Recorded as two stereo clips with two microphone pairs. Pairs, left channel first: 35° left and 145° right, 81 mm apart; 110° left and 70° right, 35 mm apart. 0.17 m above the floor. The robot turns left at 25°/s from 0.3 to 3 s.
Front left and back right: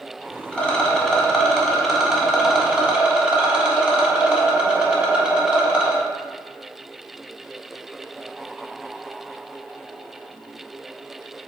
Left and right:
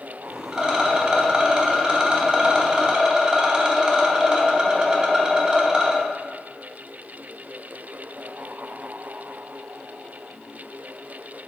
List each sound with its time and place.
0.5 s a rattle: 25° right, 0.8 m; by 6.0 s 85° right, 0.8 m